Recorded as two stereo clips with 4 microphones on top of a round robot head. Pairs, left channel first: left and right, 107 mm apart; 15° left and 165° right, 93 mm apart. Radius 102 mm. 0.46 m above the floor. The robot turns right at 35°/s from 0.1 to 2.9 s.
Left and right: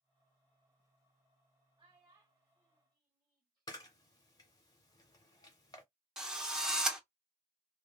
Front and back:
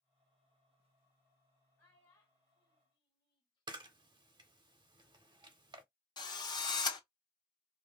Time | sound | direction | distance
1.8 | a child speaking | 45° right | 1.3 m
3.7 | a camera shutter | 150° left | 0.8 m
6.2 | a drill | 5° right | 1.0 m